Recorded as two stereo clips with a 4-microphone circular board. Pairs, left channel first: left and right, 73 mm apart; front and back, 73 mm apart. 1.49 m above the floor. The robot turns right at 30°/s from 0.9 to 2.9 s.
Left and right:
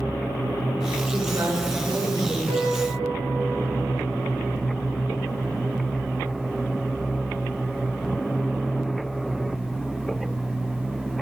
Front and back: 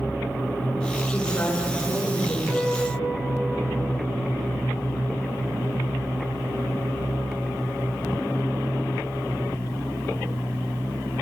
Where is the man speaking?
85° right, 7 m; by 2.4 s 45° right, 7 m.